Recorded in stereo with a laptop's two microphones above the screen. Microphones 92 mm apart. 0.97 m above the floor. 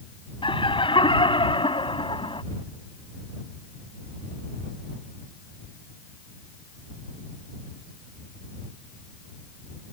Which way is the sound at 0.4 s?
70° left (ahead or behind).